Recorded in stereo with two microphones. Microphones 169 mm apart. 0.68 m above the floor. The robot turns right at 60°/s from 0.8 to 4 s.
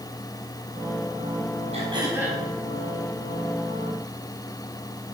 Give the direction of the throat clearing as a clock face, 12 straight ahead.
1 o'clock.